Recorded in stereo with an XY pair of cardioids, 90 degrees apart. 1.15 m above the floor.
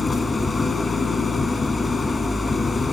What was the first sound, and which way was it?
An engine running, 35° left.